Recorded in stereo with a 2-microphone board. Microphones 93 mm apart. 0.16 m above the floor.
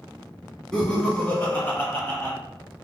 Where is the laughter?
10° left (ahead or behind), 1.4 m; by 2.4 s 20° left (ahead or behind), 2 m.